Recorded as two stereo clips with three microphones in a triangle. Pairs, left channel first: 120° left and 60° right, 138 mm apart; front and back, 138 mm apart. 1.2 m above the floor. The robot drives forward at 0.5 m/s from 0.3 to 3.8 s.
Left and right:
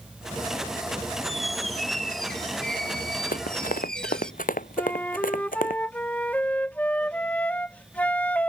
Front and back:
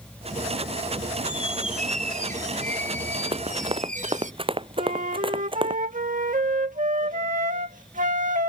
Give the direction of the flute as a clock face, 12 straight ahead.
5 o'clock.